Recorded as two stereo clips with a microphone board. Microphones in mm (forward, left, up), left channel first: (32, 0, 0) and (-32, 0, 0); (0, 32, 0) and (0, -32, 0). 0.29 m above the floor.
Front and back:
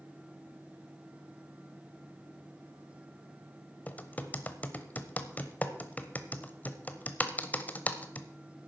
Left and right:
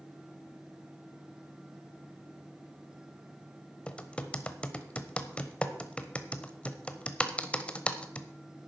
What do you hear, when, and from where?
3.9 s typing on a keyboard: 35° left, 0.9 m